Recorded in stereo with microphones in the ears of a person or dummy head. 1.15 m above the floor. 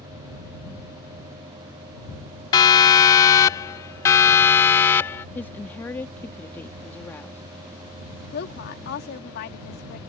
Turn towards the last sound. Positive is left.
turn(degrees=60)  # may be behind; listen again after turning